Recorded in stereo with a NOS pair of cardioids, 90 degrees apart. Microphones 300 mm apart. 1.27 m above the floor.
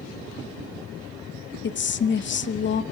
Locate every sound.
1.6 s a woman speaking: 40° left, 1.0 m